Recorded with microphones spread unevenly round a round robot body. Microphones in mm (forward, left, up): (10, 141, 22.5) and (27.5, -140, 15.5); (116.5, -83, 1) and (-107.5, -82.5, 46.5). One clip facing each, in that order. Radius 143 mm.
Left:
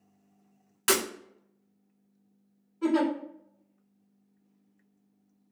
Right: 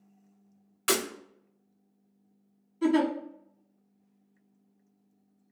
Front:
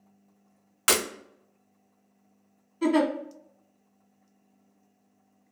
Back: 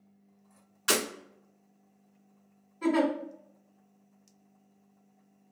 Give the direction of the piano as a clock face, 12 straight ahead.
No piano in this recording.